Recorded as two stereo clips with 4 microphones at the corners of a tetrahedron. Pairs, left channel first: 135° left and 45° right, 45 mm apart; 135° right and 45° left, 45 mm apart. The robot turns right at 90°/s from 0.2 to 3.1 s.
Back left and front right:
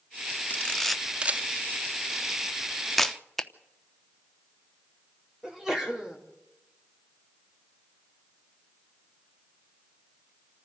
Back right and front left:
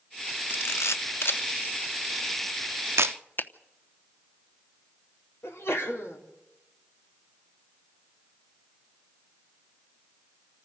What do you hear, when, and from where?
0.5 s a camera shutter: 175° right, 0.7 m; by 3.1 s 55° left, 0.7 m
3.4 s a finger snap: 145° right, 0.9 m
5.4 s a sneeze: 125° right, 4 m